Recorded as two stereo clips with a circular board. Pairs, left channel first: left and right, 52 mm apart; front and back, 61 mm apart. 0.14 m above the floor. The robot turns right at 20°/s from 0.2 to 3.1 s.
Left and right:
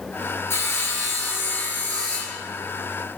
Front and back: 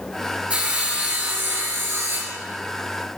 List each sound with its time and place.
0.5 s sawing: 115° left, 1.7 m; by 2.4 s 150° left, 1.7 m